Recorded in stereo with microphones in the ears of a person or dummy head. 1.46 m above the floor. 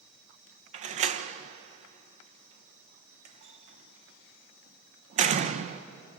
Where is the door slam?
40° right (ahead or behind), 0.8 m.